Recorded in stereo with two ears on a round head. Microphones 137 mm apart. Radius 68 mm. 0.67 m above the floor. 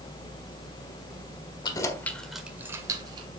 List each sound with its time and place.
1.6 s keys jangling: 30° left (ahead or behind), 1.6 m; by 3.3 s 30° right (ahead or behind), 2 m